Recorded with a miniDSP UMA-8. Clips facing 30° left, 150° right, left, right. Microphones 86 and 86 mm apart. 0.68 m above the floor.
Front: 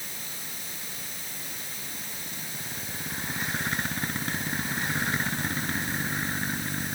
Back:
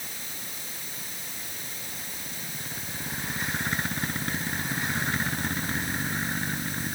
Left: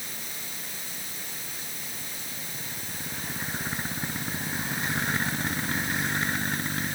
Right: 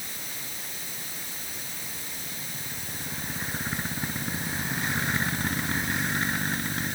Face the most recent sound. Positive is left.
No sound to turn to.